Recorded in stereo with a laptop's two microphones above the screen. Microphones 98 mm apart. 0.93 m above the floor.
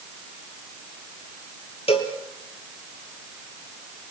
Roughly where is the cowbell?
Left.